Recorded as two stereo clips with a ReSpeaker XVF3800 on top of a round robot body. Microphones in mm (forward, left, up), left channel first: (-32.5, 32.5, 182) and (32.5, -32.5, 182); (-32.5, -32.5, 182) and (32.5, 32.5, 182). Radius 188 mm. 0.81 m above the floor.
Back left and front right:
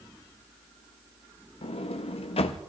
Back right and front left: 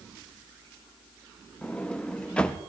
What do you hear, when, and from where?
1.6 s a sliding door: 145° left, 0.6 m